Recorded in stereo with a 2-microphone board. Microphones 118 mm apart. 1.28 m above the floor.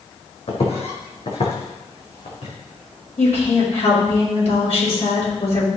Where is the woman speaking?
65° left (ahead or behind), 5.5 m.